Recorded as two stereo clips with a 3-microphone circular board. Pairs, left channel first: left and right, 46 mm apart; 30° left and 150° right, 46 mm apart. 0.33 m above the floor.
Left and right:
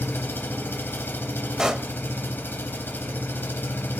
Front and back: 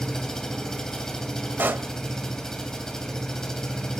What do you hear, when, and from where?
0.0 s an engine running: 110° left, 1.3 m
1.6 s a pop: 165° right, 0.5 m